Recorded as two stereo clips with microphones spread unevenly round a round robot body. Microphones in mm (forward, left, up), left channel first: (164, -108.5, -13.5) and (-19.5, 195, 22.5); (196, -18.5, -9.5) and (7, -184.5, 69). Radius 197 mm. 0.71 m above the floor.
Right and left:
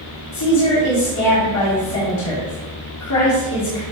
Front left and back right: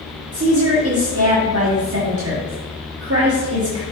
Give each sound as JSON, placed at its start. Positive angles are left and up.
{"t": 0.3, "sound": "a woman speaking", "azimuth_deg": -95, "distance_m": 1.7}